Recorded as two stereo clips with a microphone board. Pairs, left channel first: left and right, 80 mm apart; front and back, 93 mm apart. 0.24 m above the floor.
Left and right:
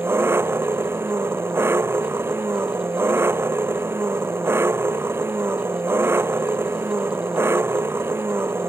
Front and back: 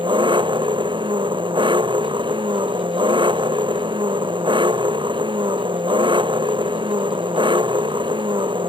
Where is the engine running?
150° right.